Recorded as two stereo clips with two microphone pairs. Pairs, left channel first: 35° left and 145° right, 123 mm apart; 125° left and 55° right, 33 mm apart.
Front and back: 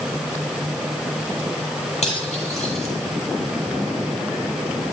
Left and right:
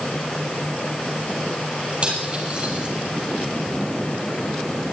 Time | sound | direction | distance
2.0 | cutlery clinking | 5° left | 7.5 m